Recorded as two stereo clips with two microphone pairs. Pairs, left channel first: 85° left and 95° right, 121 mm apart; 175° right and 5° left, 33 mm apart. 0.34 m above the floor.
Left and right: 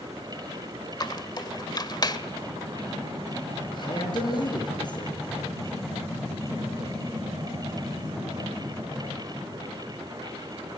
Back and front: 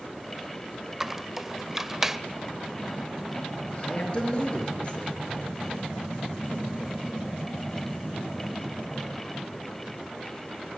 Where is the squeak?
80° left, 0.9 m.